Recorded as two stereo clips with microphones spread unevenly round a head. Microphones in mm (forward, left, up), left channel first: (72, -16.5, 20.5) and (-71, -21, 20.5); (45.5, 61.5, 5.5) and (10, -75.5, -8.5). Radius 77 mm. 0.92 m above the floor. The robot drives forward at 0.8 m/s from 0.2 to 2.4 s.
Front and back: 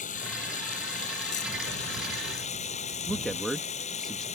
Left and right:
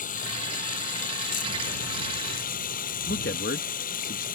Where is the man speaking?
90° left.